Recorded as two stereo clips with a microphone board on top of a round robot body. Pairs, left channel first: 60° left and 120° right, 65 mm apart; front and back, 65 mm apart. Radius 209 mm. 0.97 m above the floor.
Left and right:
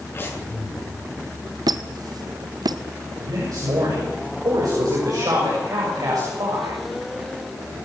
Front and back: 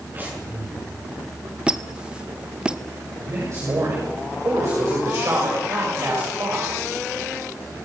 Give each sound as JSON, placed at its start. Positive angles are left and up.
{"t": 0.1, "sound": "breathing", "azimuth_deg": 115, "distance_m": 7.5}
{"t": 1.7, "sound": "a squeak", "azimuth_deg": -105, "distance_m": 0.7}
{"t": 3.2, "sound": "a man speaking", "azimuth_deg": -140, "distance_m": 6.5}